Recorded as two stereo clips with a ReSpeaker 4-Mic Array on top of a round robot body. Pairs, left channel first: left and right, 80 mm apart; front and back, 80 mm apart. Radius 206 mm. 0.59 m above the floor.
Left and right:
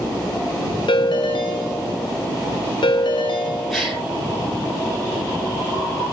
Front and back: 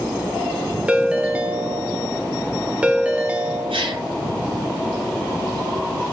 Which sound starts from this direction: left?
A ringtone, at 0.9 s.